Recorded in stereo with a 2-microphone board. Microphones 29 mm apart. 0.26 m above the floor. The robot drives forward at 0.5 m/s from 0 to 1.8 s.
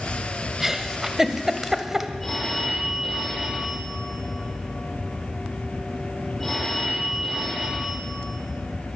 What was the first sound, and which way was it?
A giggle, 10° right (ahead or behind).